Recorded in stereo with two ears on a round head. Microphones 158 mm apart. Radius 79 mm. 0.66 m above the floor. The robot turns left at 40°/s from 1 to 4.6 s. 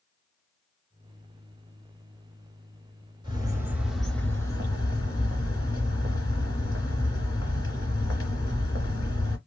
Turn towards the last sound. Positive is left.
turn(degrees=155)